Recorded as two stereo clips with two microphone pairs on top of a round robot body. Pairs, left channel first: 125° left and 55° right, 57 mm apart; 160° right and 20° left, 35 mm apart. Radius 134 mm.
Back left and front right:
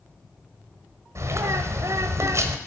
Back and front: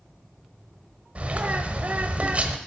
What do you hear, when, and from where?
1.1 s a bird: 35° right, 1.2 m